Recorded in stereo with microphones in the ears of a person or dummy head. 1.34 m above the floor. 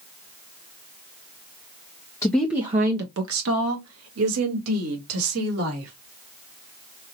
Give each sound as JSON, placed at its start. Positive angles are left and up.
{"t": 2.2, "sound": "a woman speaking", "side_deg": 10, "distance_m": 0.7}